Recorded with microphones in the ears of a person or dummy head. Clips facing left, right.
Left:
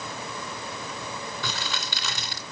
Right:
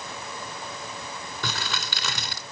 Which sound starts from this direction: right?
Crumpling, at 1.4 s.